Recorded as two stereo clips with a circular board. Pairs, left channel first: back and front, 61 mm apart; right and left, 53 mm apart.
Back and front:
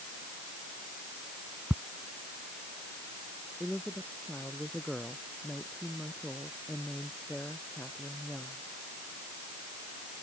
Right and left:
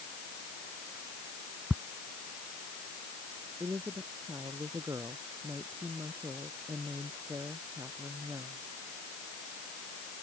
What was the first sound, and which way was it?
Ticking, 45° left.